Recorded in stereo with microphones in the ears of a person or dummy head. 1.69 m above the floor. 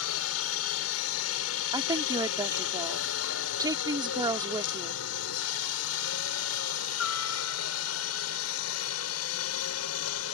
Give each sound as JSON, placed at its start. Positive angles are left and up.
{"t": 0.0, "sound": "a helicopter", "side_deg": 75}
{"t": 1.7, "sound": "a woman speaking", "side_deg": -20}